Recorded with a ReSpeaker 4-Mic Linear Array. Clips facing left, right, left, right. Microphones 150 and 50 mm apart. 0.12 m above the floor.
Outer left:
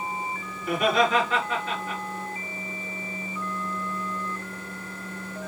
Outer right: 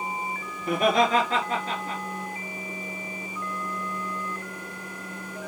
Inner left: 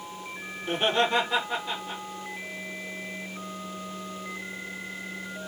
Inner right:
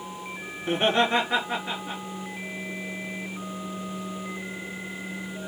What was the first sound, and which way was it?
Laughter, 45° right (ahead or behind).